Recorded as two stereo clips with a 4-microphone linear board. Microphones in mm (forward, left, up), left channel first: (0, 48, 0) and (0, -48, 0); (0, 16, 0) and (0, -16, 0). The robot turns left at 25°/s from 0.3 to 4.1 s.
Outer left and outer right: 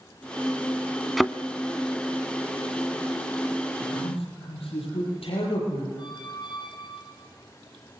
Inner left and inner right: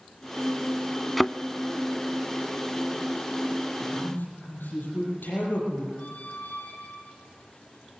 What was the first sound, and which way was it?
A thud, centre (ahead or behind).